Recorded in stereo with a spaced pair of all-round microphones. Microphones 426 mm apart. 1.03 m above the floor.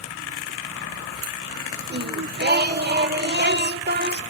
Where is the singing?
25° right (ahead or behind), 0.8 m.